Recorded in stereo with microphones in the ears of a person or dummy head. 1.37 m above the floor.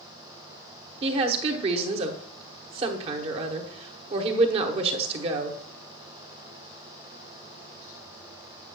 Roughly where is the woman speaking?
Right.